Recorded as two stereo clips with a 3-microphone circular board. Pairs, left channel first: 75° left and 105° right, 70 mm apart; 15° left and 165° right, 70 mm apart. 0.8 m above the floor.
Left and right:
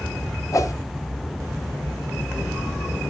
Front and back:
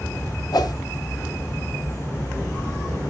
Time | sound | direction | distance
0.5 | a whoosh | 35° left | 0.6 m